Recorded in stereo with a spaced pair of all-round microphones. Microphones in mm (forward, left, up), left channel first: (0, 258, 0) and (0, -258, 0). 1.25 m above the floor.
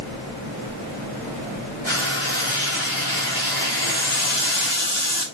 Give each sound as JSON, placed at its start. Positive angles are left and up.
{"t": 1.9, "sound": "frying", "side_deg": 70, "distance_m": 4.0}
{"t": 3.8, "sound": "a running tap", "side_deg": 80, "distance_m": 2.5}